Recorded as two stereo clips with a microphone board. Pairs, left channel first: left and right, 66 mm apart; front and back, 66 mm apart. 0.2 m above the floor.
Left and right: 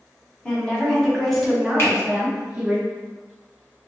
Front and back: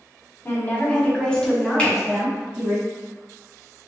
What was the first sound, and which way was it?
A woman speaking, 30° left.